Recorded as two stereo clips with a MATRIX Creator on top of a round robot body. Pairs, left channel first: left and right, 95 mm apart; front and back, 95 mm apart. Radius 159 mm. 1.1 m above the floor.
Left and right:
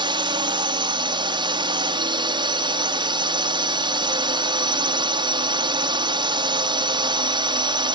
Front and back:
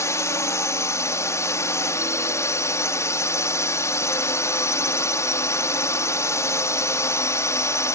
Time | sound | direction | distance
0.0 | a drone | 60° right | ?